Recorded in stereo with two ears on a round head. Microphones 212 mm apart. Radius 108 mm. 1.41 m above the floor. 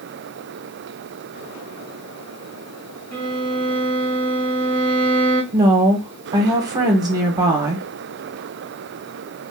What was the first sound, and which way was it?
A violin, 5° left (ahead or behind).